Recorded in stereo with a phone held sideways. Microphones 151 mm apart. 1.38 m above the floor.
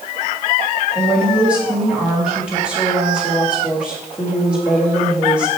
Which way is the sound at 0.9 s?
5° right (ahead or behind).